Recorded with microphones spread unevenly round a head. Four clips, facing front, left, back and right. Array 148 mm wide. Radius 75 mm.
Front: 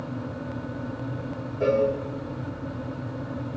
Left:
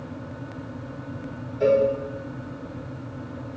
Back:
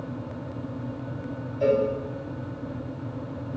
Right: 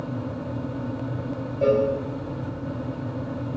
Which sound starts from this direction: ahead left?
A cowbell, at 1.6 s.